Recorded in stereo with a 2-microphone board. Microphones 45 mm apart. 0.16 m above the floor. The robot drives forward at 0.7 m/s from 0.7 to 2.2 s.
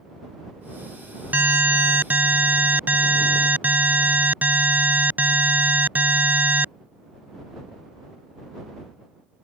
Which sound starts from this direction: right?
An alarm, at 1.3 s.